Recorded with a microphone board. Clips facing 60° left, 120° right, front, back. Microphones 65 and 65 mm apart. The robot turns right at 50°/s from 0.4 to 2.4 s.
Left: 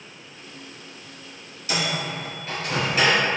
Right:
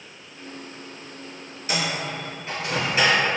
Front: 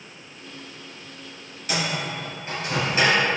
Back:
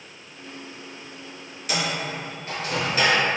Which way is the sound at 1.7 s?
90° right.